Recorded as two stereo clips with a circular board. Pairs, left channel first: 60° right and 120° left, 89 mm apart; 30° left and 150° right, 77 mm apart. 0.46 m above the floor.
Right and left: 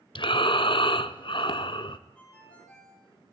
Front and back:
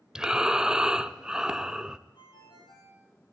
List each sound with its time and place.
0.1 s breathing: 70° right, 0.9 m
2.1 s a ringtone: 15° left, 8 m